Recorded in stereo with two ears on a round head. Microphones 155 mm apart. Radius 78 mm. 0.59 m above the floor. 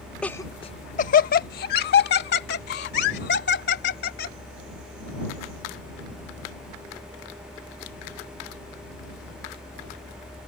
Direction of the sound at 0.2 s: 5° left (ahead or behind).